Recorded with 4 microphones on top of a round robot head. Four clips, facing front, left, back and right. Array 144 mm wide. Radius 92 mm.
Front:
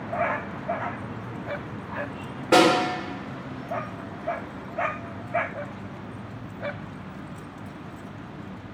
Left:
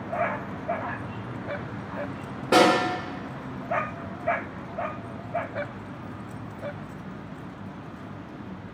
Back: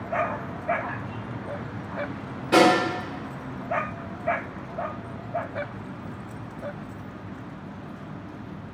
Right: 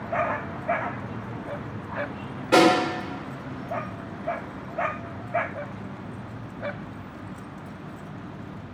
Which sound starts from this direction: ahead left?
A snare drum, at 2.5 s.